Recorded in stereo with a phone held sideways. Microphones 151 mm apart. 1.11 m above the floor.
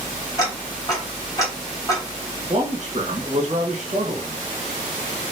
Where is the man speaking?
55° right (ahead or behind), 1.6 m.